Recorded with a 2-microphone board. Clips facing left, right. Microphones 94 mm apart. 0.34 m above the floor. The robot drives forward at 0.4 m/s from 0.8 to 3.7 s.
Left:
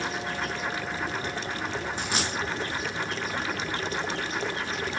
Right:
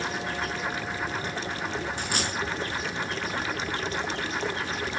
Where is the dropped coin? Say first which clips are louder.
Even; 30° left (ahead or behind), 3.5 m.